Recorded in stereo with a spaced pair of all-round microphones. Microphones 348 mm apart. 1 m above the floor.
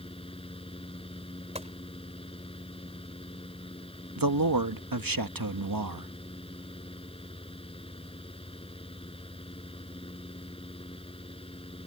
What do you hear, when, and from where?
0.0 s a fan: 15° left (ahead or behind)
1.6 s a gunshot: 20° right (ahead or behind)
4.2 s a man speaking: 75° right (ahead or behind)